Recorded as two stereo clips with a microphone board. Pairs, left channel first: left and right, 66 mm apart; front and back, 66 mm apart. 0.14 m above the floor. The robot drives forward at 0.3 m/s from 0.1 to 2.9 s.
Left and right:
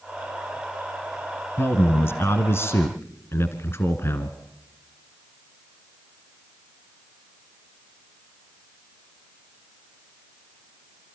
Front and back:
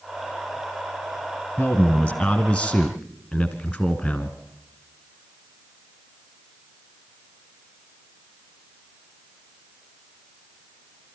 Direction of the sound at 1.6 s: 70° left.